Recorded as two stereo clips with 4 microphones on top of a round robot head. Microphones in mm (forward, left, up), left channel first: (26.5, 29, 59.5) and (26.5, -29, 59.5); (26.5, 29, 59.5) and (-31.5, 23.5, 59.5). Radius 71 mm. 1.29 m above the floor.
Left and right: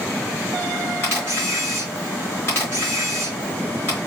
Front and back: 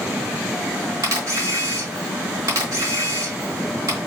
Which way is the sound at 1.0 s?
150° left.